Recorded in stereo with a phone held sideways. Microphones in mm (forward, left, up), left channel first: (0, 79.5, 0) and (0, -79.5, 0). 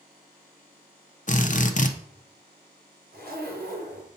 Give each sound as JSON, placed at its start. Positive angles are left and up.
{"t": 1.3, "sound": "a drill", "side_deg": 50, "distance_m": 0.8}
{"t": 3.1, "sound": "a zipper", "side_deg": -70, "distance_m": 3.5}